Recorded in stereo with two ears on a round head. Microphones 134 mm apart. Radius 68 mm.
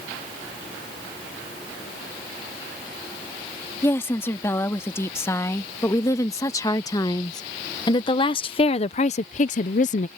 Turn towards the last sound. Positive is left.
turn(degrees=45)  # may be behind; listen again after turning